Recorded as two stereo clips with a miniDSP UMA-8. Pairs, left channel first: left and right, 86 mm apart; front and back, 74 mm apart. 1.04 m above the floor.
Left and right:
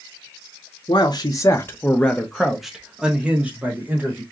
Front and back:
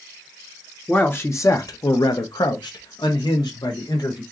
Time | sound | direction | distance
0.9 | a man speaking | 65° left | 0.8 m